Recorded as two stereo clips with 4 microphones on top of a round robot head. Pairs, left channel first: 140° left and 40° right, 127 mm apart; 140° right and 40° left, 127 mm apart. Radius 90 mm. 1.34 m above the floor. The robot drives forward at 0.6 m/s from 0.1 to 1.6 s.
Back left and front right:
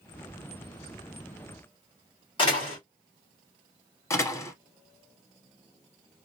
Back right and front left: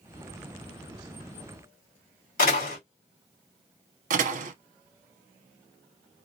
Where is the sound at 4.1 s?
70° left, 0.6 m.